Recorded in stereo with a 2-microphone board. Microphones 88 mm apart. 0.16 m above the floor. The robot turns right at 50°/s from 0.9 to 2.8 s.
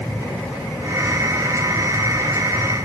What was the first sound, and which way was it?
Only background noise.